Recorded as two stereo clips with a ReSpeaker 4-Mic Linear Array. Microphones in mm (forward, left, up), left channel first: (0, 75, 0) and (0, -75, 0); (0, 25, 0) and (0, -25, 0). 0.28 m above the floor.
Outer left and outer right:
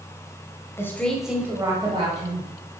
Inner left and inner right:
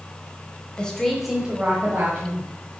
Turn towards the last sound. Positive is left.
turn(degrees=-40)  # may be behind; listen again after turning